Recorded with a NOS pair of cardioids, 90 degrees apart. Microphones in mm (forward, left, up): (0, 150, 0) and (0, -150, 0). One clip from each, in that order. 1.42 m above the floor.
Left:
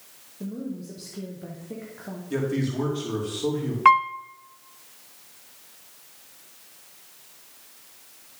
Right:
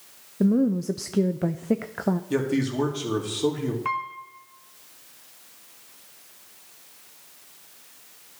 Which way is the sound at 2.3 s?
30° right.